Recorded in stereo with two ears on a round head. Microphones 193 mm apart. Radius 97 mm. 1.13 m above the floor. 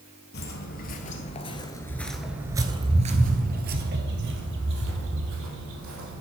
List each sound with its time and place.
0.3 s footsteps: 50° left (ahead or behind), 1.7 m; by 6.2 s 70° right (ahead or behind), 3 m